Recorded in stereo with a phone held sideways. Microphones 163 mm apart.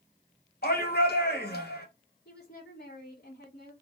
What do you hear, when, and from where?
0.6 s a shout: 75° left (ahead or behind), 1.8 m
2.2 s a woman speaking: 80° left, 2 m